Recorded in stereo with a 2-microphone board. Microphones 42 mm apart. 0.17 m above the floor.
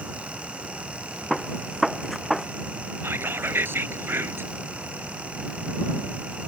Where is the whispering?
65° right (ahead or behind).